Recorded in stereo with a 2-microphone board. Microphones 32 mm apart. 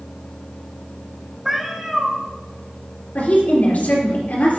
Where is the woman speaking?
60° left (ahead or behind), 3.5 m.